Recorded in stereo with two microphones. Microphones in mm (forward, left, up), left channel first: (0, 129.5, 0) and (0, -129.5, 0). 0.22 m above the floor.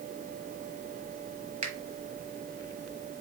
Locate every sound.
1.6 s a finger snap: 30° right (ahead or behind), 1.1 m